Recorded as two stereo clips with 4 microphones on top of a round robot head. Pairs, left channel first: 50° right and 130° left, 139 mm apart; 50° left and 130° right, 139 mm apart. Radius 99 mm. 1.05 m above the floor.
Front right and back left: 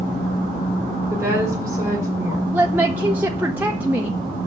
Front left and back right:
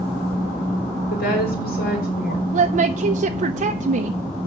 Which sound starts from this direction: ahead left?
A woman speaking, at 1.1 s.